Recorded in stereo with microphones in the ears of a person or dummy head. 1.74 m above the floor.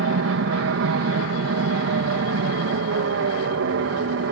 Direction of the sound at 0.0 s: 65° right (ahead or behind).